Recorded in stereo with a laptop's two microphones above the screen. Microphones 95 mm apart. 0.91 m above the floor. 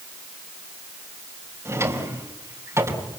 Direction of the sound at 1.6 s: 30° right (ahead or behind).